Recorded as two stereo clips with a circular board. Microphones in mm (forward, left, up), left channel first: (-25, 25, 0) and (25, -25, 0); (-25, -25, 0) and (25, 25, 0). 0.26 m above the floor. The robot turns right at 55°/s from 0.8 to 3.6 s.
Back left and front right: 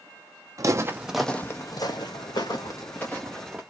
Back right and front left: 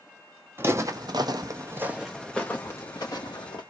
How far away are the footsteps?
About 0.6 m.